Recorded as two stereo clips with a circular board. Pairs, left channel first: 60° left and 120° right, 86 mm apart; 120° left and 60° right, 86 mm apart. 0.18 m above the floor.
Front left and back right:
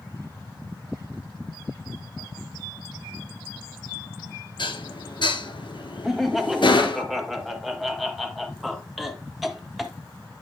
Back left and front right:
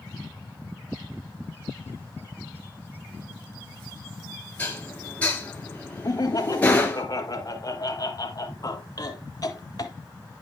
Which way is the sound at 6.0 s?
150° left.